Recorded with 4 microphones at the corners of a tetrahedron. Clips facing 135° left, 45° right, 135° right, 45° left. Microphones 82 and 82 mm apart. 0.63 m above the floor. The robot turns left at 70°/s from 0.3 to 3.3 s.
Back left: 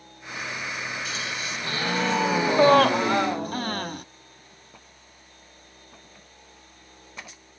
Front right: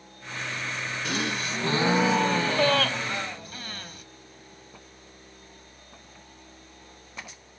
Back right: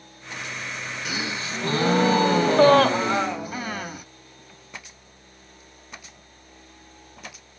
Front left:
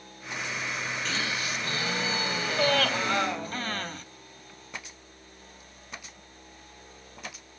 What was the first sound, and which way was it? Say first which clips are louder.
A gasp: front right 3 dB, back right 4 dB; 55° right.